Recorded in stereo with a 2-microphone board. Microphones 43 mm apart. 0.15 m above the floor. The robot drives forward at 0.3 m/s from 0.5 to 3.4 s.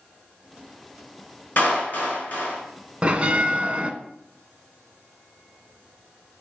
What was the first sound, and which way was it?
A clap, 45° left (ahead or behind).